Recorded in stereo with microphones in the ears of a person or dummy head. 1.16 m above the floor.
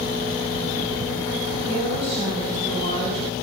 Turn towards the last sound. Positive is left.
turn(degrees=-30)  # may be behind; listen again after turning